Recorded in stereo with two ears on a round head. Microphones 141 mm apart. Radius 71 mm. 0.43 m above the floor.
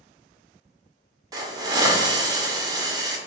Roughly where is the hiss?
Right.